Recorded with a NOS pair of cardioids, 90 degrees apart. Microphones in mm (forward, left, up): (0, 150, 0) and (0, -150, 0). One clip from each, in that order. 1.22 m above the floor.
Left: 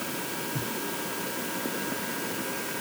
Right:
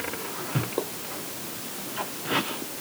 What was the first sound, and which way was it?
Only background noise.